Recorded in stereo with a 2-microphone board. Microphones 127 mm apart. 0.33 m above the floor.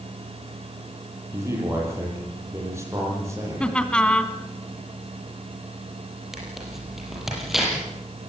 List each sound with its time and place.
1.3 s a man speaking: 20° right (ahead or behind), 10 m
3.6 s laughter: 10° left (ahead or behind), 2 m
6.3 s tearing paper: centre (ahead or behind), 7.5 m